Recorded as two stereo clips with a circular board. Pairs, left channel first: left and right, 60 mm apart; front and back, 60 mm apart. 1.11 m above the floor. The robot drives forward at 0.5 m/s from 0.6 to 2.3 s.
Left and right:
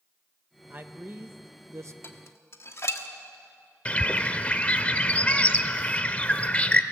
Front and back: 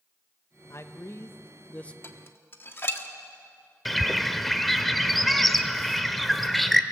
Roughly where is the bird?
Left.